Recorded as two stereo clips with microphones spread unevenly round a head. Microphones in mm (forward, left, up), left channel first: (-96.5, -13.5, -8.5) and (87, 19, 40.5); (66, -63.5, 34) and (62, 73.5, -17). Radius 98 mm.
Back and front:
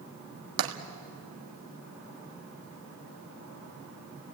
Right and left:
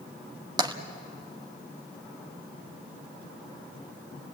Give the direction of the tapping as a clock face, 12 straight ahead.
11 o'clock.